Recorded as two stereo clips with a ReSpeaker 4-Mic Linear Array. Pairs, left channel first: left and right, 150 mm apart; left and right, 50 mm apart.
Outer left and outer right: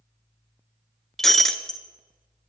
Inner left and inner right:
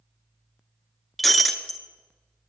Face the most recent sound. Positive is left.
turn(degrees=5)  # may be behind; listen again after turning